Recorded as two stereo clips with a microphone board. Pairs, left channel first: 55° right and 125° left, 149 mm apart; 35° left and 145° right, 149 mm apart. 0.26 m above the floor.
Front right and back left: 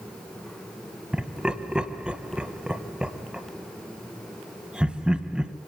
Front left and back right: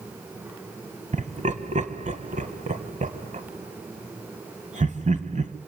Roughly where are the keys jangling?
I don't hear keys jangling.